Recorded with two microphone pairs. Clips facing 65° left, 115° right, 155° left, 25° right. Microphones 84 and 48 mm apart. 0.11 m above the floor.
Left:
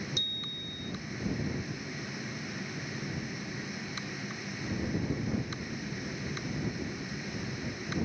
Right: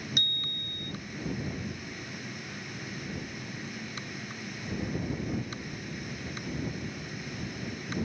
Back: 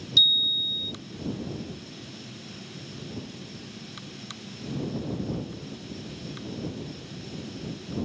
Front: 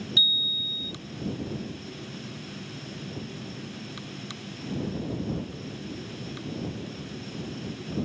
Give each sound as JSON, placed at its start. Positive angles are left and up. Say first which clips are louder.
{"t": 0.2, "sound": "a bicycle bell", "louder": "right 2 dB, back 2 dB", "azimuth_deg": -95}